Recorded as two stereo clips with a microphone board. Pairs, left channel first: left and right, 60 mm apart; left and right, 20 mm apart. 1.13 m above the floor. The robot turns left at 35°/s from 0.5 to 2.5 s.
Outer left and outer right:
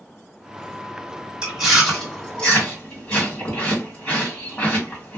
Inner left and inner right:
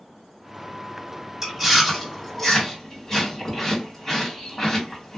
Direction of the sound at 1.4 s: 15° right (ahead or behind).